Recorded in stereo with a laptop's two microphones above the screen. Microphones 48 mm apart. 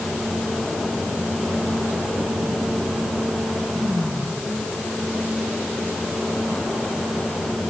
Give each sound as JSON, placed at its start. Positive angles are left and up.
{"t": 0.0, "sound": "a fan", "side_deg": -15, "distance_m": 4.0}